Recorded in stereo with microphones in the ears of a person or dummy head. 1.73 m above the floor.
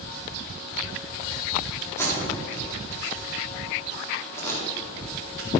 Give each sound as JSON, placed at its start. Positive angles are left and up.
{"t": 2.0, "sound": "tape being pulled", "side_deg": 15, "distance_m": 4.0}